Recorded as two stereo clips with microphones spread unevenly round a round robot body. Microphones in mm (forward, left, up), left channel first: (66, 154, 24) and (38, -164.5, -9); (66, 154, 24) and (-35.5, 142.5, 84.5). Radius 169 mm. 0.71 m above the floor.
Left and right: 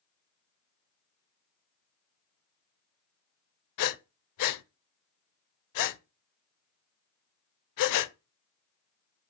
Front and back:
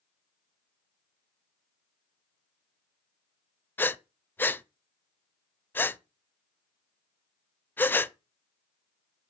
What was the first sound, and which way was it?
Breathing, 95° left.